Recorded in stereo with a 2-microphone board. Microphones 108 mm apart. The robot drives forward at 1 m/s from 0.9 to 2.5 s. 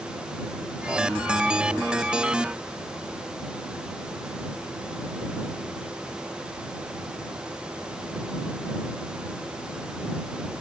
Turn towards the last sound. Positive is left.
No sound to turn to.